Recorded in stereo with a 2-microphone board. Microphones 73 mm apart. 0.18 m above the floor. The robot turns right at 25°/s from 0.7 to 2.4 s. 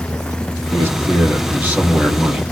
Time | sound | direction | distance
0.7 | a man speaking | 70° right | 1.4 m